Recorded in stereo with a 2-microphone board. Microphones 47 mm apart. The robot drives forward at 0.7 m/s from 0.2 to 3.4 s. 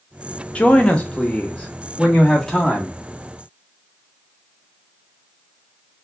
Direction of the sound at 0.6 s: 25° left (ahead or behind).